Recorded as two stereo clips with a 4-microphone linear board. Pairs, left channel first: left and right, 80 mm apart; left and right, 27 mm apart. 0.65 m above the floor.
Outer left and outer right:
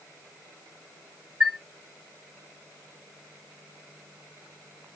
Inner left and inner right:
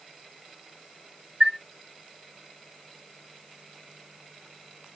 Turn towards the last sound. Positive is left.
turn(degrees=-20)  # may be behind; listen again after turning